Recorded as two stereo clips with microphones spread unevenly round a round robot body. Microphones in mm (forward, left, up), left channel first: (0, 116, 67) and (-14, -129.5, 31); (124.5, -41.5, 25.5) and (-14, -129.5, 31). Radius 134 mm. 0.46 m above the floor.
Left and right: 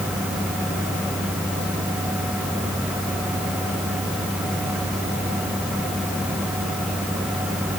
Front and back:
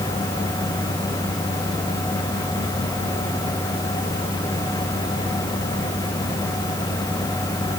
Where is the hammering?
No hammering in this recording.